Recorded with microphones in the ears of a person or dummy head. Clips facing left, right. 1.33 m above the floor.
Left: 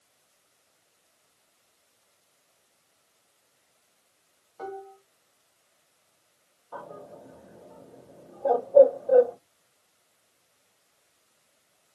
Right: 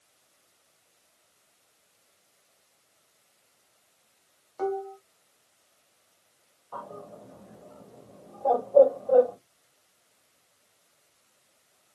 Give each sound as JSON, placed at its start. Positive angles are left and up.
{"t": 4.6, "sound": "dishes clattering", "side_deg": -70, "distance_m": 0.9}
{"t": 6.7, "sound": "a bird", "side_deg": 15, "distance_m": 1.5}